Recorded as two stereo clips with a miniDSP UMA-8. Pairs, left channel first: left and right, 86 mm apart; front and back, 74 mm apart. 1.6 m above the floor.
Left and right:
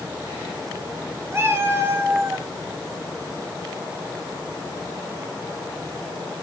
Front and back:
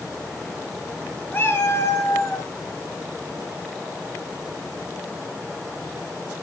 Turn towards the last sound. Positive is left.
turn(degrees=-35)